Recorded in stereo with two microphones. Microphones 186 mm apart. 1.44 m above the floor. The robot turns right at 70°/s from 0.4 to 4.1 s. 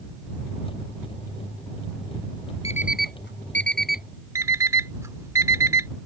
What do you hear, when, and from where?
2.6 s an alarm clock: 35° left (ahead or behind); by 4.0 s 50° left (ahead or behind)
4.3 s an alarm clock: 15° right (ahead or behind)